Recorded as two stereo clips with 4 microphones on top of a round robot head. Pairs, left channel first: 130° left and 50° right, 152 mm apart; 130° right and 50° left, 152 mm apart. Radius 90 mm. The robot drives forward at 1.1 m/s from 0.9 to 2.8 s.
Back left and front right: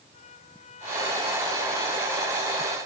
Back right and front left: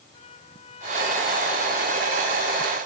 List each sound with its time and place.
0.1 s a trumpet: 175° left; by 2.8 s straight behind